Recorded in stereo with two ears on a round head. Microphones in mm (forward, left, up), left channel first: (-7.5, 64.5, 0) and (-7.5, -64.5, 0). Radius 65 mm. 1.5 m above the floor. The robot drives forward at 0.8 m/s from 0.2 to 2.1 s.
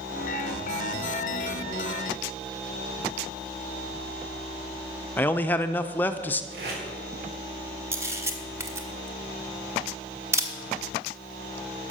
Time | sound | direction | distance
5.2 | a man speaking | 15° left (ahead or behind) | 0.5 m
6.5 | tape being pulled | 85° right | 4 m
7.9 | a camera shutter | 20° right (ahead or behind) | 1.1 m